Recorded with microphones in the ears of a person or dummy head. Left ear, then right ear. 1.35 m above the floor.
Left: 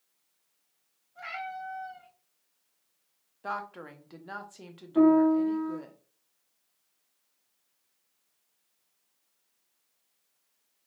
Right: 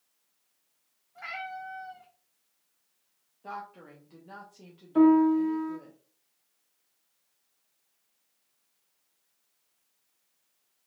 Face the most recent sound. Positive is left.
turn(degrees=-70)  # may be behind; listen again after turning